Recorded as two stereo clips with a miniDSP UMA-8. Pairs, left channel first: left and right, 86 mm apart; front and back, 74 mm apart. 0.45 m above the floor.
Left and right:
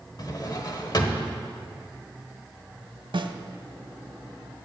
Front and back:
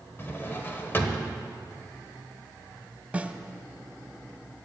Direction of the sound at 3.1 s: 110° right.